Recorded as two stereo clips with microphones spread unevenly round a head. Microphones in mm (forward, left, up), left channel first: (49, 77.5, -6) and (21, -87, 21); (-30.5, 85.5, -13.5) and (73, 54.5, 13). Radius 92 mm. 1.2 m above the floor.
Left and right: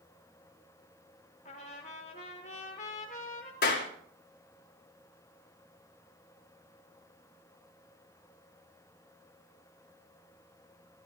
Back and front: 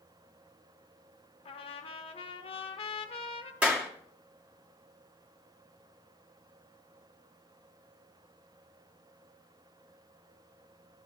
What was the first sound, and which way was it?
A trumpet, 135° left.